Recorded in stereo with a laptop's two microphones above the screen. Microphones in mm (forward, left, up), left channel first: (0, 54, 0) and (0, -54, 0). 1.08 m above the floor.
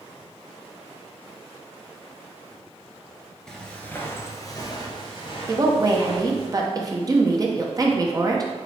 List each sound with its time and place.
3.5 s footsteps: 5° left (ahead or behind), 1.2 m; by 6.5 s 60° left (ahead or behind), 2 m
5.5 s a woman speaking: 35° right (ahead or behind), 0.6 m